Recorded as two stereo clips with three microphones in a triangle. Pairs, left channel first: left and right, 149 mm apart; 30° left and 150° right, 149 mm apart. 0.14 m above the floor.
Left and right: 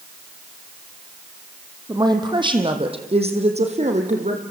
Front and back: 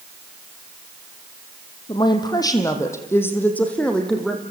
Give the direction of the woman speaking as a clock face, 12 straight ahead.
1 o'clock.